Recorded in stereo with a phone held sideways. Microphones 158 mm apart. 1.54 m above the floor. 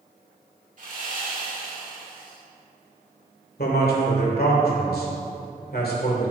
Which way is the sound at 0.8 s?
55° right (ahead or behind).